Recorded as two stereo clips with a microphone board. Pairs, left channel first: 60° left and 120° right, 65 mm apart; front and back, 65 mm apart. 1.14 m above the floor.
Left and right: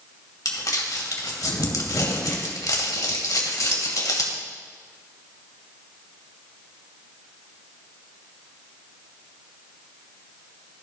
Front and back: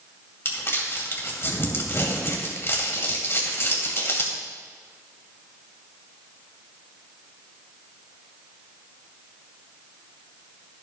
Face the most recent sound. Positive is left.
turn(degrees=45)